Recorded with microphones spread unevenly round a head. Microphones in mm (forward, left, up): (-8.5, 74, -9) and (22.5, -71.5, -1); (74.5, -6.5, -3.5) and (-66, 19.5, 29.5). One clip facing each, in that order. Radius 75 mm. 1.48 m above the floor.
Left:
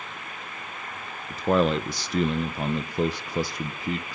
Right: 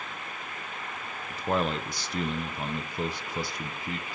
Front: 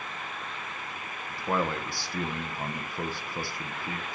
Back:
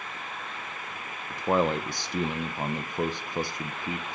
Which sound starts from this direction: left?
A man speaking, at 1.3 s.